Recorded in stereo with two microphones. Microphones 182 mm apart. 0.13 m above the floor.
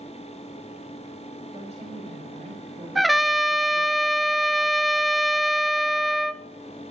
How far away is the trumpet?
About 0.6 m.